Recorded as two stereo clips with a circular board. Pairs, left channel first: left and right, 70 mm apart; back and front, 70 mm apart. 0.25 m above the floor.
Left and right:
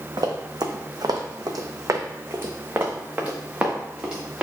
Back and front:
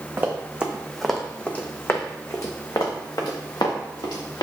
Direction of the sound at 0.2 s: 65° right.